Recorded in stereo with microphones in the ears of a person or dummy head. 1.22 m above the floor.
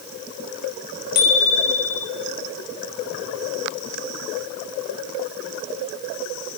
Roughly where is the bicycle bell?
Left.